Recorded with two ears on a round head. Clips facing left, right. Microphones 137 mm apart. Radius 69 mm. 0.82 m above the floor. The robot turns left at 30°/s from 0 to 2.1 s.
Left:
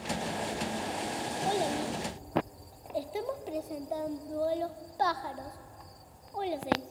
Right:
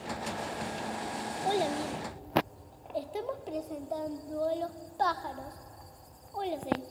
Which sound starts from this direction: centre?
A child speaking, at 1.4 s.